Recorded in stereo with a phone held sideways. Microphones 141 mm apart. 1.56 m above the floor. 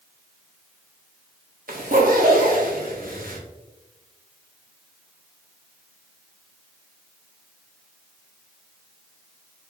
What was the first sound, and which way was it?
A zipper, 80° right.